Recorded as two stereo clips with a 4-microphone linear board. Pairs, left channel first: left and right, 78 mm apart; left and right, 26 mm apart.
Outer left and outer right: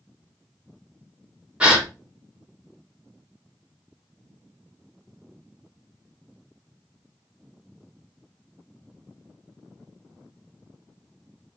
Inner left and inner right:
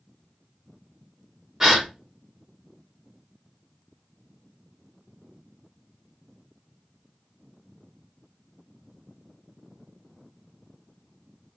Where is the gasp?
15° right (ahead or behind), 0.8 m.